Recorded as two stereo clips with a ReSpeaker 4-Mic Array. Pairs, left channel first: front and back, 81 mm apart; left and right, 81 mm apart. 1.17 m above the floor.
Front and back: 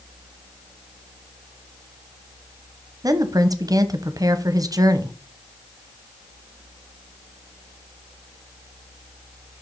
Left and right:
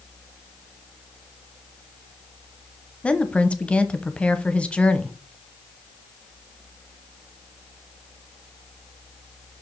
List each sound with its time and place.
3.0 s a woman speaking: 165° left, 0.8 m